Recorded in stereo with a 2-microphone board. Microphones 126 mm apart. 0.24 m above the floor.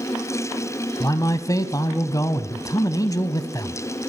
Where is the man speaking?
30° left (ahead or behind), 1.2 m.